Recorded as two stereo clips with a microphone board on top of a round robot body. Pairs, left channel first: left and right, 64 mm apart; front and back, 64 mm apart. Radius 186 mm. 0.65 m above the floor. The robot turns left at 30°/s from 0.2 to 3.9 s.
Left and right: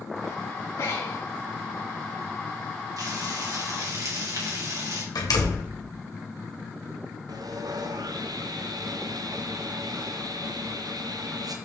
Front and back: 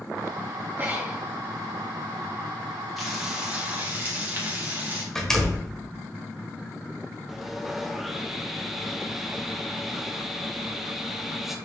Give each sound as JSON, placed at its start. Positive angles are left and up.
{"t": 0.8, "sound": "breathing", "azimuth_deg": 125, "distance_m": 3.0}
{"t": 3.0, "sound": "frying", "azimuth_deg": -90, "distance_m": 2.0}
{"t": 5.2, "sound": "a door slam", "azimuth_deg": 85, "distance_m": 1.6}
{"t": 7.3, "sound": "sawing", "azimuth_deg": -95, "distance_m": 0.9}